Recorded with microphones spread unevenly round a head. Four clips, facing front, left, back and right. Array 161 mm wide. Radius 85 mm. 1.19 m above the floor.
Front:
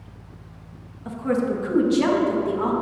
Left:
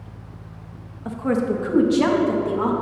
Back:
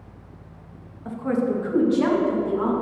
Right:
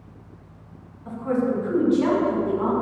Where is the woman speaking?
85° left, 1.7 m; by 2.7 s 70° left, 2.5 m.